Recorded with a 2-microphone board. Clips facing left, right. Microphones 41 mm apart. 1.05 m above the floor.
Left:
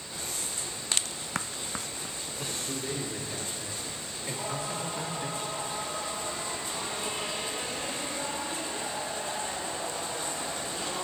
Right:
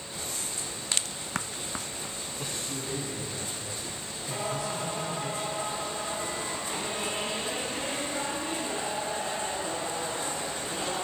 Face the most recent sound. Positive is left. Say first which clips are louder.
# right 3 dB
turn(degrees=-55)  # may be behind; listen again after turning